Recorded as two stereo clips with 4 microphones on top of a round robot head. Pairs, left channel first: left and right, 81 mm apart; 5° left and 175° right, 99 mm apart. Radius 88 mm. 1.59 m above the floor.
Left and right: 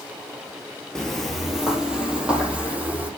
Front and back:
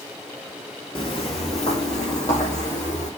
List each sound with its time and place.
0.9 s footsteps: 10° left, 2.0 m; by 3.1 s 20° right, 4 m